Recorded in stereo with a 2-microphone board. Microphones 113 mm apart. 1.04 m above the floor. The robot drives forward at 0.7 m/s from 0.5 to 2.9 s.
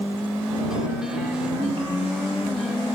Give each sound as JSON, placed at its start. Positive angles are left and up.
{"t": 1.6, "sound": "a ringtone", "side_deg": -45, "distance_m": 1.9}